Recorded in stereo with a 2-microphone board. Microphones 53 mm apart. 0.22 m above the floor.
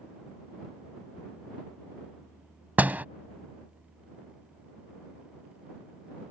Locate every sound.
2.8 s a door slam: 35° right (ahead or behind)